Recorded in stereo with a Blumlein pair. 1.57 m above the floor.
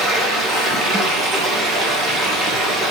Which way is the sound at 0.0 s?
20° right.